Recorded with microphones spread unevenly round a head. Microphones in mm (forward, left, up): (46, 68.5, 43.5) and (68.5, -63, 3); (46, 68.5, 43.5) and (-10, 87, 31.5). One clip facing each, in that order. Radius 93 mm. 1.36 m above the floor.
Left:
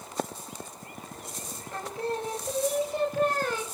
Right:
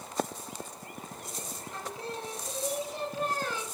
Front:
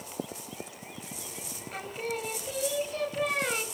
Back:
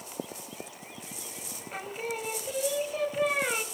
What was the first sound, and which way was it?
Singing, 75° left.